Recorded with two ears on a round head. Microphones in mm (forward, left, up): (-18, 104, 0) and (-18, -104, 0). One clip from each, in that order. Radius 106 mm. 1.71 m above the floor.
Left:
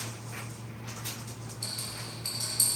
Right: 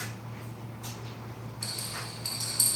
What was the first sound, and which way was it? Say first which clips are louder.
A rattle: right 1 dB; centre (ahead or behind).